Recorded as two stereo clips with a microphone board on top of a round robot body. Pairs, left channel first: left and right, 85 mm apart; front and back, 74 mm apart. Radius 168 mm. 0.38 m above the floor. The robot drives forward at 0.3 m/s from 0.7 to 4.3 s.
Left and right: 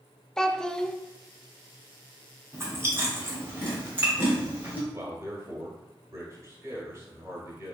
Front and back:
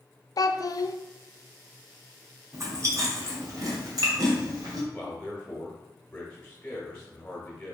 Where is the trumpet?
I don't hear a trumpet.